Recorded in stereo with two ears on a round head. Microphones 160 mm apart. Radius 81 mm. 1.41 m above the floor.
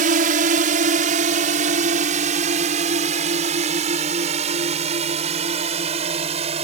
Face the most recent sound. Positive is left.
turn(degrees=-35)  # may be behind; listen again after turning